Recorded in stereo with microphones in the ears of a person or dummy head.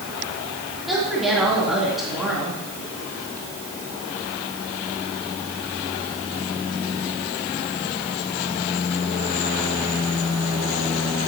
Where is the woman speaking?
Centre (ahead or behind), 3.5 m.